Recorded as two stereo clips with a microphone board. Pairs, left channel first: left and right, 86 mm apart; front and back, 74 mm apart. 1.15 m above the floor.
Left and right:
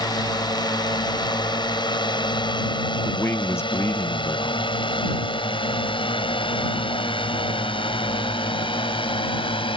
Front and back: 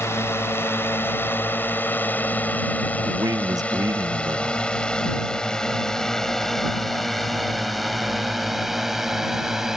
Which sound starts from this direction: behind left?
A man speaking, at 3.0 s.